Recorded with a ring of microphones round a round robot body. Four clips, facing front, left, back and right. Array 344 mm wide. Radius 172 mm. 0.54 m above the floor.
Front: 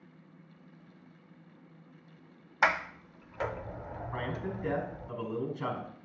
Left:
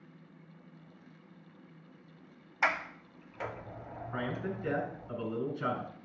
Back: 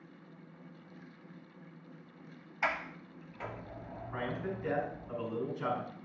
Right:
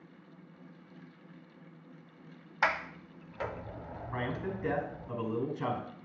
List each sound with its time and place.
2.6 s a sliding door: 20° right, 0.6 m
4.1 s a man speaking: 65° right, 4.5 m